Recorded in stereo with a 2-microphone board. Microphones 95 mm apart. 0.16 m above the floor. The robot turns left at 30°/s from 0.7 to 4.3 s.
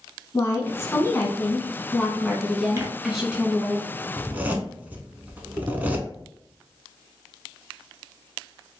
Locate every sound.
0.3 s a woman speaking: 65° left, 1.2 m; by 3.8 s 30° right, 1.2 m
2.8 s tearing paper: 30° right (ahead or behind), 0.7 m; by 2.9 s 25° right (ahead or behind), 0.7 m
4.2 s a zipper: 15° right (ahead or behind), 0.5 m; by 6.1 s 20° right (ahead or behind), 0.5 m